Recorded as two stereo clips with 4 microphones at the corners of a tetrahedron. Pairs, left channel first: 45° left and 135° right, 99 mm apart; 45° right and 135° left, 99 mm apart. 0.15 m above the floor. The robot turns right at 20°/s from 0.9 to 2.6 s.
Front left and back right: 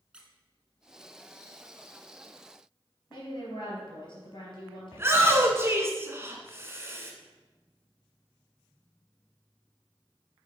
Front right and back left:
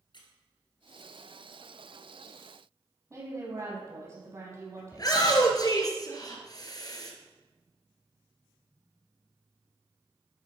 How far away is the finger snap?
No finger snap in this recording.